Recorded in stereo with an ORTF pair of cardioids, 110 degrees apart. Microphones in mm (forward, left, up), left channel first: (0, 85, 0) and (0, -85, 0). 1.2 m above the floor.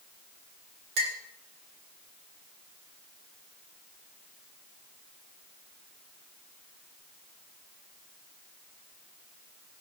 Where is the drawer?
No drawer in this recording.